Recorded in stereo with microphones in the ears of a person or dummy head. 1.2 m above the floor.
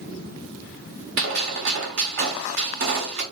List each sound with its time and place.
1.2 s a gunshot: 60° right (ahead or behind), 1.3 m